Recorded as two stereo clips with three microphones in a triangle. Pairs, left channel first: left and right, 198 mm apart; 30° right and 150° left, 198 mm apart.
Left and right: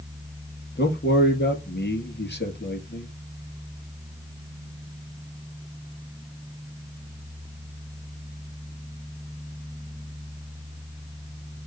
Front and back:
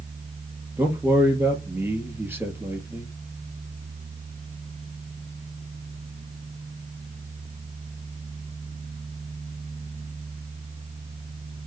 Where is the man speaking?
70° left, 2.5 m.